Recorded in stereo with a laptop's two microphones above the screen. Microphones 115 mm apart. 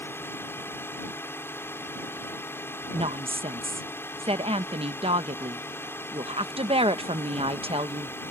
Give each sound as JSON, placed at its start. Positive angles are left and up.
{"t": 0.0, "sound": "a drone", "side_deg": 20}
{"t": 2.9, "sound": "a woman speaking", "side_deg": -50}